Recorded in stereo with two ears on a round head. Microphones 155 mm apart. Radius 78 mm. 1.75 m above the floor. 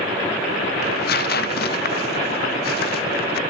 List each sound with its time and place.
0.8 s tearing paper: 55° left (ahead or behind), 0.5 m